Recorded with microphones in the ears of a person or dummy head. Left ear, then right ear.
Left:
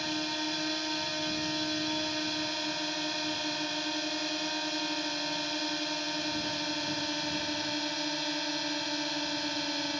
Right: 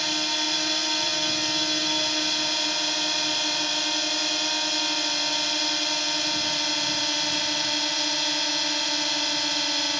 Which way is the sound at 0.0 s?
35° right (ahead or behind).